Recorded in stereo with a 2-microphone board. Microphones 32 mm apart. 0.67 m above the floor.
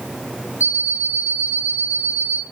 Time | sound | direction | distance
0.6 | an alarm clock | 80° right | 1.6 m